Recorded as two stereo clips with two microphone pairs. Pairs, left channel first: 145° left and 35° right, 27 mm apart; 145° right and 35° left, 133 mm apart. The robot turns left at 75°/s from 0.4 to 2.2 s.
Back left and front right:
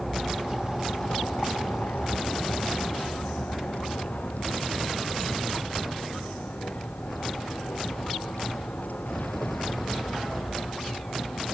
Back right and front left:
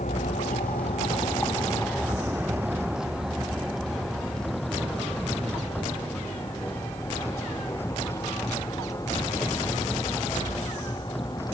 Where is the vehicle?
130° right; by 11.5 s 155° left.